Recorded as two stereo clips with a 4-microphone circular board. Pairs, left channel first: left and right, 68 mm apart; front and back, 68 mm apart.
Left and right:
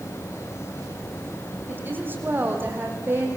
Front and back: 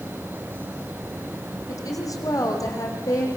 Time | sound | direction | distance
1.7 | a woman speaking | 30° right | 5.5 m